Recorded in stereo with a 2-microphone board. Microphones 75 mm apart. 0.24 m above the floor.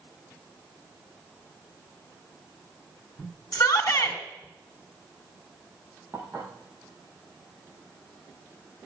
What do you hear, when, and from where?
3.5 s a shout: 50° left (ahead or behind), 2.5 m
6.1 s dishes clattering: 20° right (ahead or behind), 6.5 m